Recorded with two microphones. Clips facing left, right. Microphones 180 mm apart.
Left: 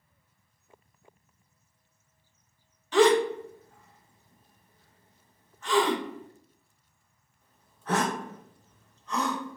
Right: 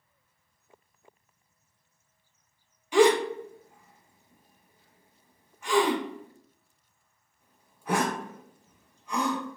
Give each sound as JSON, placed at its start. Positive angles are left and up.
{"t": 2.9, "sound": "a gasp", "side_deg": -10, "distance_m": 0.6}